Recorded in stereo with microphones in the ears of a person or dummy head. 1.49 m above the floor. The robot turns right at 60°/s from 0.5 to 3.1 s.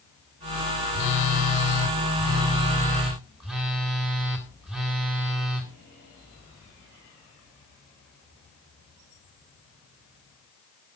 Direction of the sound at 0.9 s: 55° left.